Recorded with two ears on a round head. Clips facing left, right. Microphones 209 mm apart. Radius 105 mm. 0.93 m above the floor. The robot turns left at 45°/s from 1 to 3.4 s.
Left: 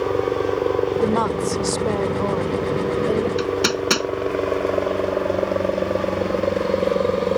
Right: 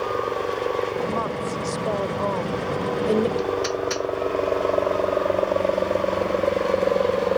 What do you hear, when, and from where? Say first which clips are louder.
0.0 s a helicopter: left 5 dB; 45° left (ahead or behind); by 7.4 s 20° left (ahead or behind)
1.0 s a woman speaking: left 6 dB; 80° left; by 3.3 s 20° right
3.4 s hammering: left 3 dB; 80° left; by 4.1 s 85° left